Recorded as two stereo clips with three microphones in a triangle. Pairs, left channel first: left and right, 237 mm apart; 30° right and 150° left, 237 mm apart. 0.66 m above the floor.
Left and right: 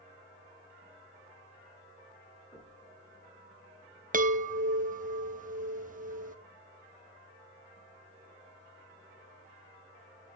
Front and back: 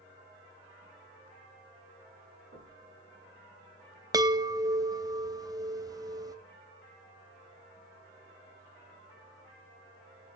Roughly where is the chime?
Behind right.